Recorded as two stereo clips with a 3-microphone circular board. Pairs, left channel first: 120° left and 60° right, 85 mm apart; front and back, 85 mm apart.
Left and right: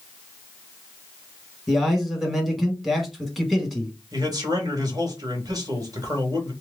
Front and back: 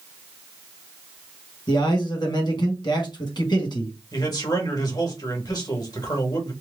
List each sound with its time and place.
1.7 s a man speaking: 30° left, 1.4 m
4.1 s a man speaking: 25° right, 1.5 m